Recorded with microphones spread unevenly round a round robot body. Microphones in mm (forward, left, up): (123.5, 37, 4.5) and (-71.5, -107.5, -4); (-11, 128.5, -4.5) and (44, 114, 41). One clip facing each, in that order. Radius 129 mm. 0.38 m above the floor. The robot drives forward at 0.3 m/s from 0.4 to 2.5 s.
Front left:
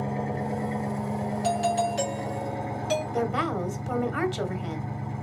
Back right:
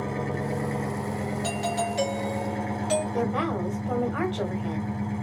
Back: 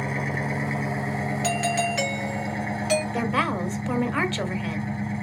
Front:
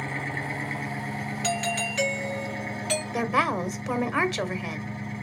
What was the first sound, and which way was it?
An engine running, 150° left.